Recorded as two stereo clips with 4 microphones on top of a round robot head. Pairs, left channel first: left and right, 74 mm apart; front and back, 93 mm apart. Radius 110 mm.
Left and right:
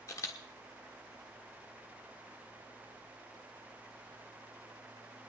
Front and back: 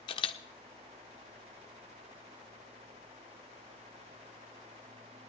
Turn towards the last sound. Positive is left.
turn(degrees=35)